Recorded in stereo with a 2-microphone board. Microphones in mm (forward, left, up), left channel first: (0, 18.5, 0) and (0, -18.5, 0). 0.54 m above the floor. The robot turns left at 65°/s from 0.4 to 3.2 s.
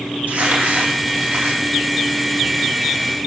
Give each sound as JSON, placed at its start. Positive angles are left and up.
{"t": 0.3, "sound": "crumpling", "azimuth_deg": -50, "distance_m": 3.5}